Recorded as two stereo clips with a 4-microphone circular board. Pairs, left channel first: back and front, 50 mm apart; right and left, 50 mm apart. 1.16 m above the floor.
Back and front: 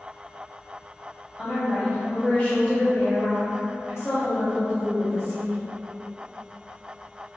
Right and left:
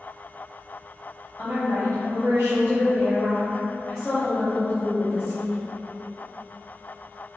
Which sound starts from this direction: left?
A woman speaking, at 1.4 s.